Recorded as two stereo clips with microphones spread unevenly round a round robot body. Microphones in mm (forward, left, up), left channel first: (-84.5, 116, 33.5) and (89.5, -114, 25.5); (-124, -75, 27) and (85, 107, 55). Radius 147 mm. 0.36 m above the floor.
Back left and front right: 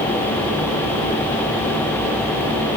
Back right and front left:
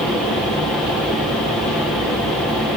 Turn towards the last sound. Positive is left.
No sound to turn to.